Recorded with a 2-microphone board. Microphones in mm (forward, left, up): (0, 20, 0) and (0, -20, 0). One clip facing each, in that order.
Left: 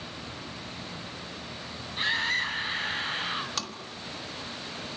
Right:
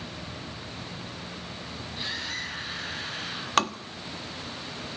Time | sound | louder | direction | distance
2.0 | a scream | left 8 dB | 45° left (ahead or behind) | 6.5 m
3.6 | tapping | right 11 dB | 50° right (ahead or behind) | 1.5 m